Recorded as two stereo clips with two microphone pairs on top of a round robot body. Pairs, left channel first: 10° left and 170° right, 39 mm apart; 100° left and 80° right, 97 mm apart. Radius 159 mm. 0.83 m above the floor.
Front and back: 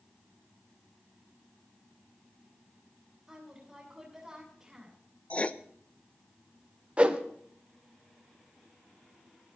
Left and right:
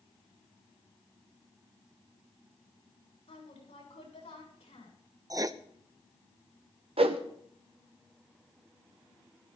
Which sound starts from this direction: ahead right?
Writing, at 5.3 s.